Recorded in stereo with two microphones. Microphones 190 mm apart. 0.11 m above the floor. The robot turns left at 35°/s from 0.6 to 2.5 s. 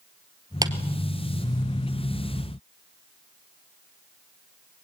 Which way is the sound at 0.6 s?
20° right (ahead or behind).